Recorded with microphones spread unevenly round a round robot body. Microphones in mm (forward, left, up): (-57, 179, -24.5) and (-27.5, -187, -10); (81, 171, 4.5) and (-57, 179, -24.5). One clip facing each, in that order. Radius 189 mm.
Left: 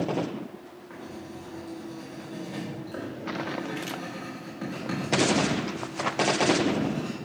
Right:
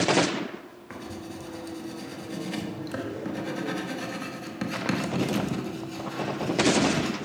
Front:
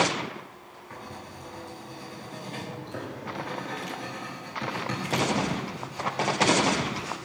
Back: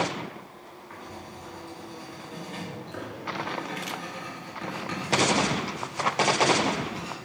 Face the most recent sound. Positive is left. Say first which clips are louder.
# right 2 dB, front 1 dB
turn(degrees=-75)